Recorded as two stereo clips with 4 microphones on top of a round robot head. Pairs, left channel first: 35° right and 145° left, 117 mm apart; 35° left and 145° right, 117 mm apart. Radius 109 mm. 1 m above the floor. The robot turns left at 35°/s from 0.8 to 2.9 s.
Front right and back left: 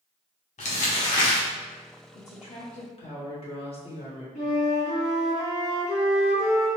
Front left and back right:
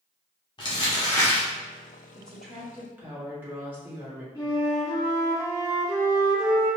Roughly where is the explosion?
No explosion in this recording.